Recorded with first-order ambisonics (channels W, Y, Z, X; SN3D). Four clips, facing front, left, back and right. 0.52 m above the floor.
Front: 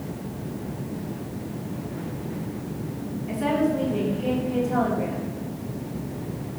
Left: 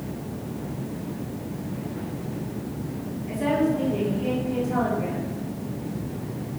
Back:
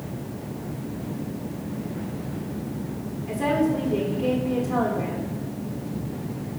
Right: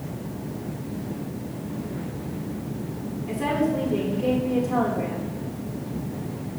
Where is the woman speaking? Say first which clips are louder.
Left 1 dB, back 1 dB; 160° right, 1.6 m.